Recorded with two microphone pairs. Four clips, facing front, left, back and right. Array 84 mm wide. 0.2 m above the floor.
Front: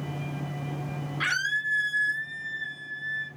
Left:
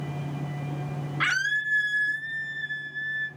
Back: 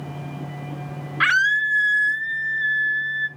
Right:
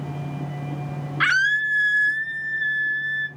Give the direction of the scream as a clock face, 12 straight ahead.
5 o'clock.